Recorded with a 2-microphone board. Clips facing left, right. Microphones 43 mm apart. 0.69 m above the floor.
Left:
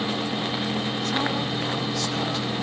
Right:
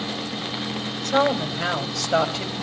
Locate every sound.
1.0 s a woman speaking: 75° right (ahead or behind), 4 m